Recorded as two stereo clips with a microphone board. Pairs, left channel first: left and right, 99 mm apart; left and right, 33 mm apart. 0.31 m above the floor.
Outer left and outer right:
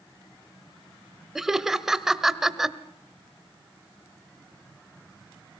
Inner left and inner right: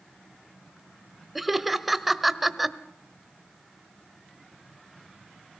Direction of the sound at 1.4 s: 5° right (ahead or behind).